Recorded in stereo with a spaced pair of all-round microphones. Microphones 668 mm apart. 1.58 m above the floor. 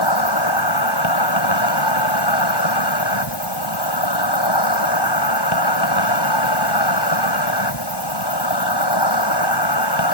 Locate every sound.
0.0 s an insect: 35° left (ahead or behind)